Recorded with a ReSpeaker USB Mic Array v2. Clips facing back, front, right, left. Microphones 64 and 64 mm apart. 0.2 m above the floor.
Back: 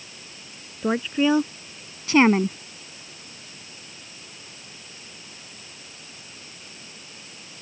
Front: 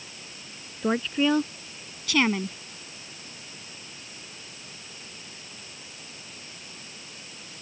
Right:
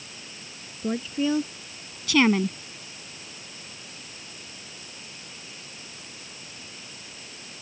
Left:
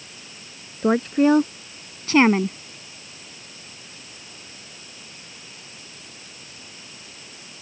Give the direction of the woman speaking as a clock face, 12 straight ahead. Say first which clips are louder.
Back 2 dB, left 9 dB; 9 o'clock.